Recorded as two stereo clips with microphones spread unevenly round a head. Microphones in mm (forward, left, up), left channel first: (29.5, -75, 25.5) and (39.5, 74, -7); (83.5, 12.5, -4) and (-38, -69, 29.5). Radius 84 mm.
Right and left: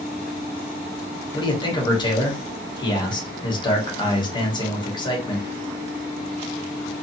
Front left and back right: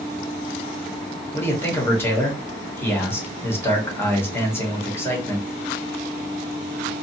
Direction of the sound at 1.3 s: 30° right.